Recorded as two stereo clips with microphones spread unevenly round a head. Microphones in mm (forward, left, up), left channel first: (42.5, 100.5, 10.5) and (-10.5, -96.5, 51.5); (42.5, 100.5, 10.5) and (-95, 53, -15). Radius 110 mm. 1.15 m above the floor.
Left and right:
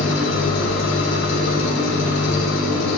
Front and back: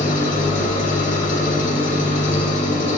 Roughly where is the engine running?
Ahead left.